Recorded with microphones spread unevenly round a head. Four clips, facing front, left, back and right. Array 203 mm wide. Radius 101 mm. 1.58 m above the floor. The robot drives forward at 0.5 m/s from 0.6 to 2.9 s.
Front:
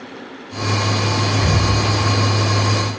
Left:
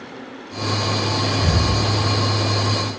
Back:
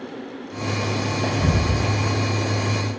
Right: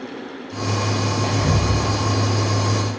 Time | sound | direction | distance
1.2 | whispering | 170° right | 2.5 m